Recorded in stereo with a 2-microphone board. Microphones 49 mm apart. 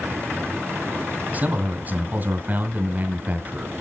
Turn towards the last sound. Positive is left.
turn(degrees=-35)  # may be behind; listen again after turning